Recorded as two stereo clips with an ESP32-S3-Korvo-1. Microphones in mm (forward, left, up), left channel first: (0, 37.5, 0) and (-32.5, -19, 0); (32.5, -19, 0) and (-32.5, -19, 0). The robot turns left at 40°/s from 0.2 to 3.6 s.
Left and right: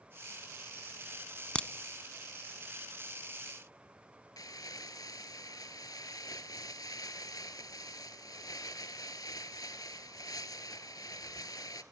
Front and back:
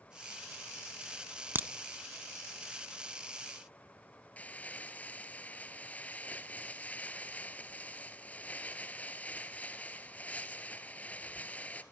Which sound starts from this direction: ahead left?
Crumpling, at 4.4 s.